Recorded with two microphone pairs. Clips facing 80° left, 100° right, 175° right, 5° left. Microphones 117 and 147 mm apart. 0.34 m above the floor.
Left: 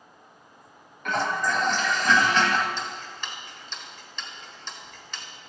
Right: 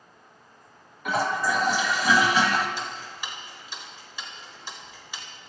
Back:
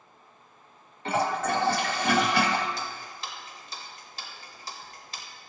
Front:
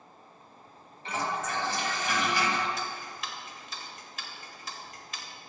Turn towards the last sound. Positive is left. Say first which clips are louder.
# even, even
turn(degrees=-170)